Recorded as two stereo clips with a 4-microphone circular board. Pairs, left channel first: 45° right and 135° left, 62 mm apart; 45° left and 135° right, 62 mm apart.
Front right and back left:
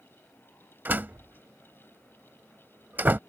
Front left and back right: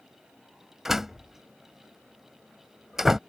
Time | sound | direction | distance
0.8 | a door slam | 145° left | ?